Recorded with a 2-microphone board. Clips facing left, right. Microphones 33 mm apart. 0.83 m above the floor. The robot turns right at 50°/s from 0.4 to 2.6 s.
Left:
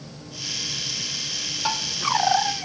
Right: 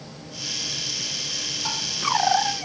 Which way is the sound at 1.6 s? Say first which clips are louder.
Left 5 dB; 25° left (ahead or behind).